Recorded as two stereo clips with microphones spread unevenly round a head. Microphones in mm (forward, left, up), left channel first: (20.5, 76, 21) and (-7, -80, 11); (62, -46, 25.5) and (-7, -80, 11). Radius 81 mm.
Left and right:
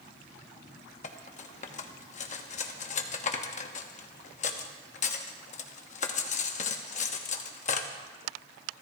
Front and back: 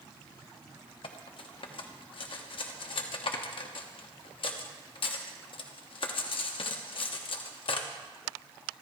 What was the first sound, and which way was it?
Cutlery clinking, 35° left.